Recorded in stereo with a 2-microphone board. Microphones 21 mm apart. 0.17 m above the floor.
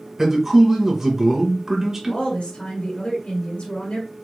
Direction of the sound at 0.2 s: 20° right (ahead or behind).